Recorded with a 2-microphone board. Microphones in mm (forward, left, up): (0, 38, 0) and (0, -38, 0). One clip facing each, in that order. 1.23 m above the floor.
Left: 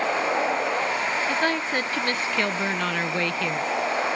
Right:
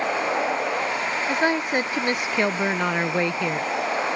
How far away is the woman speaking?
About 0.6 m.